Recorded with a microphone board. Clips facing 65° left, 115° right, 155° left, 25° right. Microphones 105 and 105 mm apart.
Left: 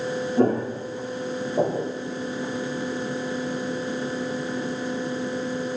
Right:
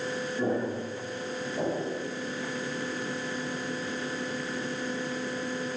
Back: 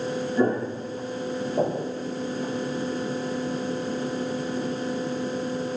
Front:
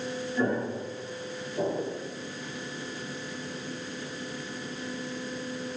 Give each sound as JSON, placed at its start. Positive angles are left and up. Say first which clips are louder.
{"t": 0.4, "sound": "footsteps", "louder": "left 8 dB, back 4 dB", "azimuth_deg": 95, "distance_m": 1.5}